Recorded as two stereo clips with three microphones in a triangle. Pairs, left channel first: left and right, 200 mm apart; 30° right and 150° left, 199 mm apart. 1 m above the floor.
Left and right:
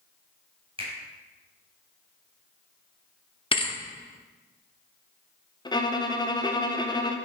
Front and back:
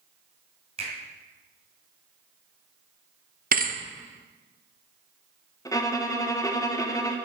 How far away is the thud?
About 0.6 m.